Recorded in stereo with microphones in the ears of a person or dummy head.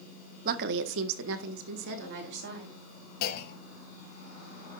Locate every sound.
0.5 s a woman speaking: 50° right (ahead or behind), 1.3 m; by 2.8 s 60° right (ahead or behind), 3.5 m
3.2 s a clunk: 50° left (ahead or behind), 1.6 m